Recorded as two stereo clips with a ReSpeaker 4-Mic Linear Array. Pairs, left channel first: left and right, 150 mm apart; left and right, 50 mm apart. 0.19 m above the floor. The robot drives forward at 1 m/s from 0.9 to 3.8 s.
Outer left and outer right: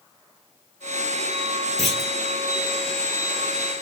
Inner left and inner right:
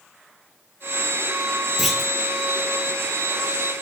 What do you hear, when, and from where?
1.8 s a clunk: centre (ahead or behind), 1.5 m